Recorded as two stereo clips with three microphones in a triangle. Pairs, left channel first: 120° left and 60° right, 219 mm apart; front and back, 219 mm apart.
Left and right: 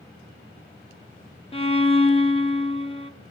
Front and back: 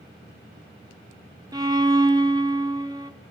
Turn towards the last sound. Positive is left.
turn(degrees=130)